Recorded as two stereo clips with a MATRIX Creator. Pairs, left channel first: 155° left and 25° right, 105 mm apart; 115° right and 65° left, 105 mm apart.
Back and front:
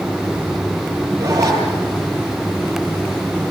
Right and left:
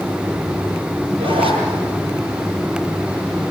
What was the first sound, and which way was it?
A zipper, 40° left.